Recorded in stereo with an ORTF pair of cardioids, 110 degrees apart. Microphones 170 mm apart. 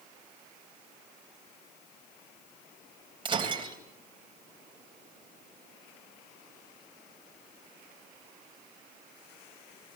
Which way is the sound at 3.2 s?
30° right.